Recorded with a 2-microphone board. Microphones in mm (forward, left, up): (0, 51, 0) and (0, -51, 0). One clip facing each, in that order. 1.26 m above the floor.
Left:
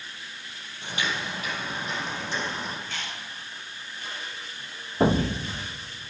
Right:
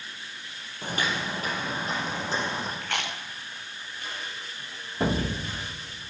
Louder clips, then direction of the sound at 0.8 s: Right 2 dB; 45° right (ahead or behind).